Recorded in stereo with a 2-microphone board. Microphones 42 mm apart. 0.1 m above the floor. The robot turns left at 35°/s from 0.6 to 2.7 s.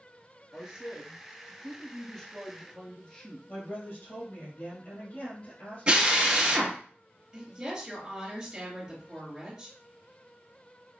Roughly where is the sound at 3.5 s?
Left.